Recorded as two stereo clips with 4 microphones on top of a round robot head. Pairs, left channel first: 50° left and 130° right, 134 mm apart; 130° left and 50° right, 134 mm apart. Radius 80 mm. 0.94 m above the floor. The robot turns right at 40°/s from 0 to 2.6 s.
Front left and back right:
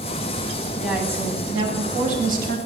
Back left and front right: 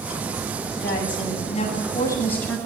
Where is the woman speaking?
145° left, 9 m; by 2.6 s 145° right, 9 m.